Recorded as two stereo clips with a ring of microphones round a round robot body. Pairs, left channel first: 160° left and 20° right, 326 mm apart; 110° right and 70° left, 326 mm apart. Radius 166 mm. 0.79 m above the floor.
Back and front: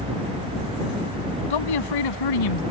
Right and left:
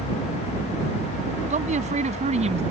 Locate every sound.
1.5 s a man speaking: 140° left